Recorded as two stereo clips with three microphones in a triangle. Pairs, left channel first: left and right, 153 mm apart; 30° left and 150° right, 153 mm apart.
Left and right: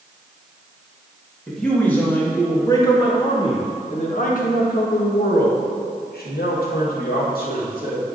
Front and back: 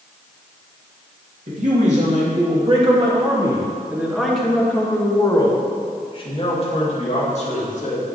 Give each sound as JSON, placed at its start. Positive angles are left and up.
{"t": 1.5, "sound": "a man speaking", "azimuth_deg": 175, "distance_m": 2.5}